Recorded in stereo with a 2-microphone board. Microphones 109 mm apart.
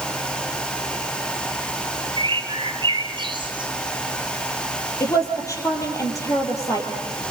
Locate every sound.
2.2 s a bird: 45° right (ahead or behind), 1.9 m
5.0 s a woman speaking: 30° left (ahead or behind), 4.5 m